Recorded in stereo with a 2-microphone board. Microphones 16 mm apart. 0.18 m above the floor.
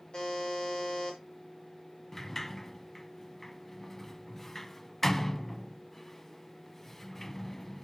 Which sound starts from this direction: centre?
A sliding door, at 2.1 s.